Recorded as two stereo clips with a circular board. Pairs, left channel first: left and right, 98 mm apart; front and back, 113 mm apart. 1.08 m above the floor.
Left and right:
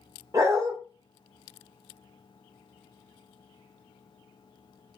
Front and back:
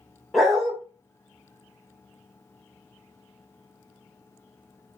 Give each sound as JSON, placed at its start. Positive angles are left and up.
{"t": 0.3, "sound": "a dog barking", "azimuth_deg": -90, "distance_m": 0.8}